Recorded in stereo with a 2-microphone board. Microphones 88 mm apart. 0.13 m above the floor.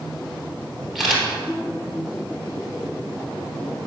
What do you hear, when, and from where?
0.9 s a camera shutter: centre (ahead or behind), 2.5 m